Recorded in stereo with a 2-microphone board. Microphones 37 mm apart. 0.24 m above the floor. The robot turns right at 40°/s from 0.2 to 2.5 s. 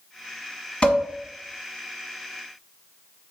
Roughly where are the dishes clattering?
Left.